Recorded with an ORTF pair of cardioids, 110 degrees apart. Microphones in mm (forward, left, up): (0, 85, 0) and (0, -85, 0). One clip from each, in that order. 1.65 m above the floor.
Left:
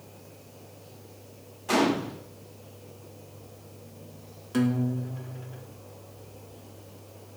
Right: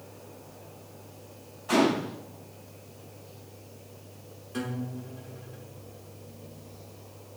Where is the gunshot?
45° left, 2 m.